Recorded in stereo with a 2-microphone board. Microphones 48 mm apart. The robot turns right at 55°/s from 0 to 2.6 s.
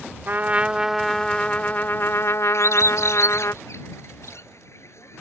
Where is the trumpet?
45° right; by 3.5 s 85° left.